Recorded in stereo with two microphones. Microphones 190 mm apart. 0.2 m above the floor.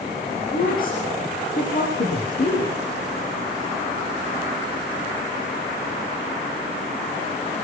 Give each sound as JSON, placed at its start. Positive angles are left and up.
{"t": 0.5, "sound": "a woman speaking", "side_deg": 50, "distance_m": 7.5}